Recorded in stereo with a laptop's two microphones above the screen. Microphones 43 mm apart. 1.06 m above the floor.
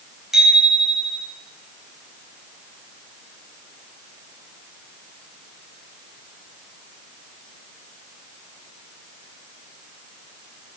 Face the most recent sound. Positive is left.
turn(degrees=-10)  # may be behind; listen again after turning